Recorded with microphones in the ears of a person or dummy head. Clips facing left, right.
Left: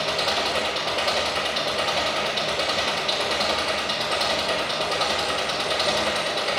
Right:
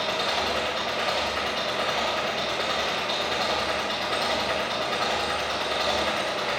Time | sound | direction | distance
0.0 | an engine running | 50° left (ahead or behind) | 5.5 m